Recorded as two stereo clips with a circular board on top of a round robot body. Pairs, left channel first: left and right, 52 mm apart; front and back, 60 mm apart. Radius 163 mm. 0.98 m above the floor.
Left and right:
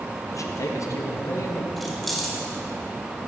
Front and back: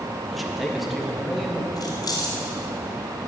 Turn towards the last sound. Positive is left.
turn(degrees=5)